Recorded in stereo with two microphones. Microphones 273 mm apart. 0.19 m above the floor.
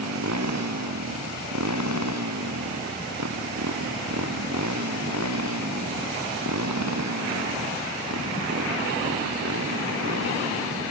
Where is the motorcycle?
75° right (ahead or behind); by 10.9 s 70° right (ahead or behind).